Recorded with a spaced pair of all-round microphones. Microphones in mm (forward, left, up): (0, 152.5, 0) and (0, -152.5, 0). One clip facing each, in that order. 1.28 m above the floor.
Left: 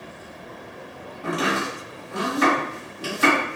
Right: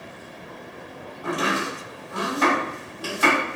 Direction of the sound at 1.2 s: 30° left (ahead or behind).